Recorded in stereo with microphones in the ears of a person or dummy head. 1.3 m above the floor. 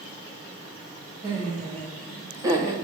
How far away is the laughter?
About 1.9 m.